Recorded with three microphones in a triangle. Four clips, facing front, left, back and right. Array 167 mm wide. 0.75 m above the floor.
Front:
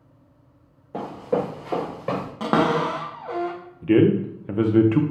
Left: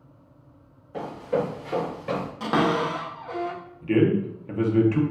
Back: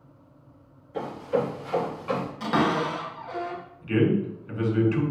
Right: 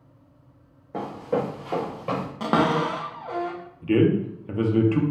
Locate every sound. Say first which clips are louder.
0.9 s running footsteps: even, front 2 dB; 40° right, 2 m; by 2.3 s 10° right, 3 m
2.4 s a cupboard door: right 1 dB, front 5 dB; 30° right, 0.8 m
3.8 s a man speaking: right 1 dB, front 6 dB; 10° right, 0.7 m